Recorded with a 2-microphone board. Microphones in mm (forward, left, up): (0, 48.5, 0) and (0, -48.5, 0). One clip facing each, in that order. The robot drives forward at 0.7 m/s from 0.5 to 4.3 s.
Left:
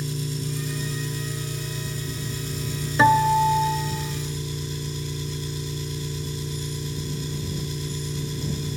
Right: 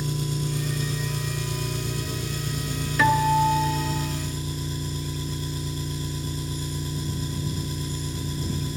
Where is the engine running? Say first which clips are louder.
Right 2 dB; 55° right (ahead or behind), 2 m; by 8.8 s 40° right (ahead or behind), 2.5 m.